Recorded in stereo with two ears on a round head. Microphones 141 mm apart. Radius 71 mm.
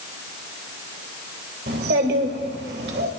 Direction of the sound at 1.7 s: 70° right (ahead or behind).